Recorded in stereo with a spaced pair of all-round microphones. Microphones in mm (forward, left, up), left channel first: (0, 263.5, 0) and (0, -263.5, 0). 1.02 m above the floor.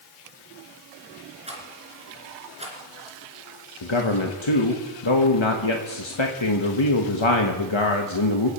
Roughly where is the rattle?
Centre.